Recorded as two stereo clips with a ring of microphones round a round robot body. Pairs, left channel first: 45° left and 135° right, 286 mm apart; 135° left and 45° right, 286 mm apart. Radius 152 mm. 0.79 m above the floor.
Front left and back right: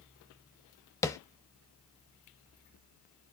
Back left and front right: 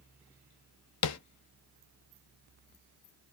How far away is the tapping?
About 0.7 m.